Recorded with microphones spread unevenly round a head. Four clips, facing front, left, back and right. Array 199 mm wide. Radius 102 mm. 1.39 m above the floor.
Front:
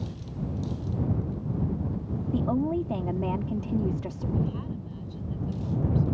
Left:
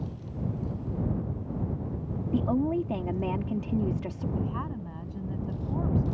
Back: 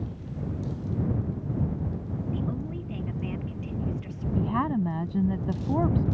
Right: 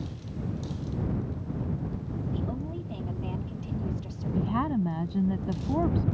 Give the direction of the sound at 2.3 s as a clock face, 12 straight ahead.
11 o'clock.